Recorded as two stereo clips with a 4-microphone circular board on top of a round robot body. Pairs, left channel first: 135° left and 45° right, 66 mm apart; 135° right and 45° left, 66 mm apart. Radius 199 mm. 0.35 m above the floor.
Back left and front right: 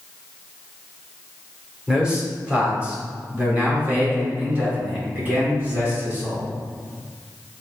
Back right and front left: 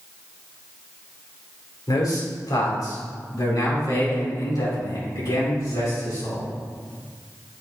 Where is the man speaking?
120° right, 3 m; by 6.5 s 110° right, 6.5 m.